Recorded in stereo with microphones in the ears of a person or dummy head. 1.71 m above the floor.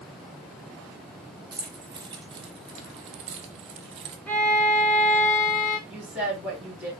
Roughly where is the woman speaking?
Centre.